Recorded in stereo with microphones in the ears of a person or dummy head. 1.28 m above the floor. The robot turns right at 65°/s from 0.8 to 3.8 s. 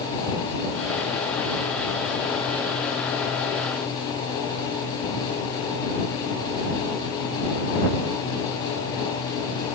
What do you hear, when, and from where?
Only background noise.